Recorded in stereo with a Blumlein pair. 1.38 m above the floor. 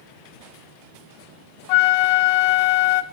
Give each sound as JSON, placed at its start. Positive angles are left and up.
{"t": 1.7, "sound": "a flute", "azimuth_deg": 45, "distance_m": 0.5}